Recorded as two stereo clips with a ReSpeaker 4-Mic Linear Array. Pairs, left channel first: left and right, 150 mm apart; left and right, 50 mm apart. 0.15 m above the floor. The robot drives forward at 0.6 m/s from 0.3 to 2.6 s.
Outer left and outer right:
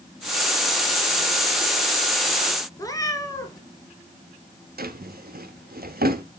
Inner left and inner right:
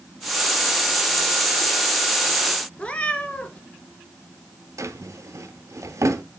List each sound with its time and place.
2.8 s a cat meowing: 20° left (ahead or behind), 1.3 m
4.8 s a drawer: 70° right (ahead or behind), 0.7 m